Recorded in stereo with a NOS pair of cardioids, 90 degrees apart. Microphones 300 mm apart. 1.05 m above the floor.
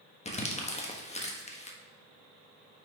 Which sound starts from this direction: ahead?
Crumpling, at 0.2 s.